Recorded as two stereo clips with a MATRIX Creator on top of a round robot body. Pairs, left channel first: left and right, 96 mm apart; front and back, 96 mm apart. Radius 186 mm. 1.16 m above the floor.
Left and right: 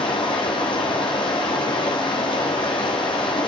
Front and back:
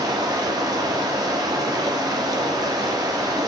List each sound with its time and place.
0.0 s running water: 130° left, 1.2 m